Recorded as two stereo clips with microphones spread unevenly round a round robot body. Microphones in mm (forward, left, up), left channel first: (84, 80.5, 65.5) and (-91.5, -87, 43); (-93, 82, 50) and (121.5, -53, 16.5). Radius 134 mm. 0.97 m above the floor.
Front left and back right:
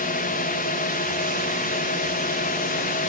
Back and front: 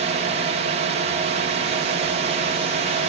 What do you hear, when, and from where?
0.0 s a drone: 5° left